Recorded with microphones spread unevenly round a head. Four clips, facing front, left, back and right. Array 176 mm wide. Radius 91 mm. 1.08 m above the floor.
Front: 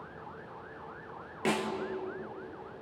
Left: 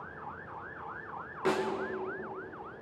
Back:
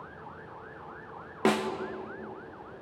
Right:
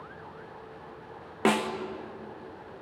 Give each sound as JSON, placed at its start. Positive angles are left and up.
{"t": 1.4, "sound": "a snare drum", "azimuth_deg": -120, "distance_m": 2.0}